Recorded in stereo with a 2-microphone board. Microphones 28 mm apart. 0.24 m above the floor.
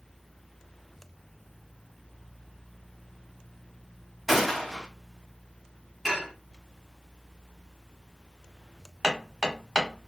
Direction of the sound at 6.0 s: 10° right (ahead or behind).